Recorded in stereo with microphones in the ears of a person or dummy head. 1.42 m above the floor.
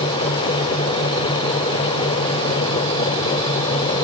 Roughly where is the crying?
I don't hear crying.